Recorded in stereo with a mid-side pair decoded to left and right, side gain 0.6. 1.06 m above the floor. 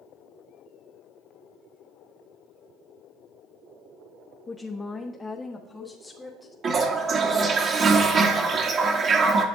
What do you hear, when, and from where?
4.5 s a woman speaking: 20° left, 0.7 m; by 6.5 s 15° left, 1.7 m
6.6 s a toilet flushing: 40° right, 1.3 m